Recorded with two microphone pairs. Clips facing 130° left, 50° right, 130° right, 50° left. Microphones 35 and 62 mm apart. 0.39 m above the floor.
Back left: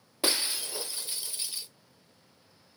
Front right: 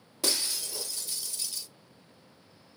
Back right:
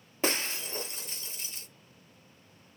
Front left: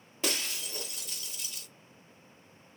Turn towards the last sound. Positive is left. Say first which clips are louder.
# back left 2 dB, back right 4 dB
turn(degrees=-170)